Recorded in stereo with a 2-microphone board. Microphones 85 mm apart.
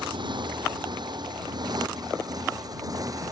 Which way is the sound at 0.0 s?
65° right (ahead or behind).